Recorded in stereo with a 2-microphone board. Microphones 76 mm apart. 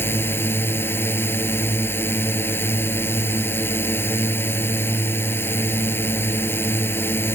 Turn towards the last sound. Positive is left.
turn(degrees=30)  # may be behind; listen again after turning